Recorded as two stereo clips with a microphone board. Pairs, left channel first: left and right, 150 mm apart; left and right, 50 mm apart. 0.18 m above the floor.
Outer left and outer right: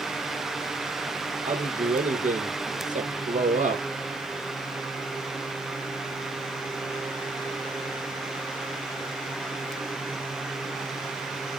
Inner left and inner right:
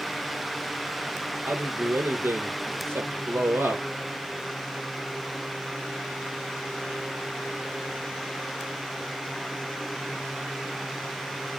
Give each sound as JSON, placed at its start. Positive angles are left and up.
{"t": 1.4, "sound": "a man speaking", "side_deg": -55, "distance_m": 3.5}